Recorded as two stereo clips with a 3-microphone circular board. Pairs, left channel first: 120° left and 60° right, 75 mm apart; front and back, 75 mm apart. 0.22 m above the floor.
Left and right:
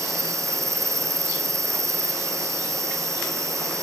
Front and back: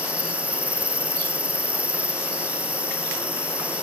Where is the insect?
110° right.